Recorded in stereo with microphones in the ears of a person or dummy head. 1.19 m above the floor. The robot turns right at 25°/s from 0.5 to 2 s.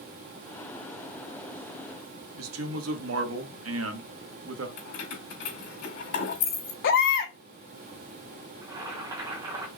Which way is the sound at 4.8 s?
70° left (ahead or behind).